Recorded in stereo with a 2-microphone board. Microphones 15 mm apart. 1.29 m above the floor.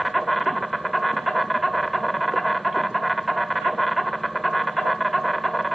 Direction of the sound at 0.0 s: Centre (ahead or behind).